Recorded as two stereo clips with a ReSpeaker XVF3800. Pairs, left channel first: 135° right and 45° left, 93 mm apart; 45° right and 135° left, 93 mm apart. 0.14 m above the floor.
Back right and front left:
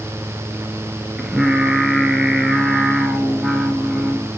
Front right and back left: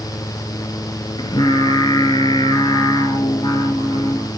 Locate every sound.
1.2 s singing: 40° right, 1.1 m